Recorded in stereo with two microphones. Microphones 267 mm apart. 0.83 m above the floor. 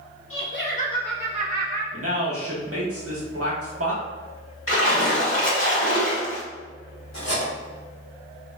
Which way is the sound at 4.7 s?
50° left (ahead or behind).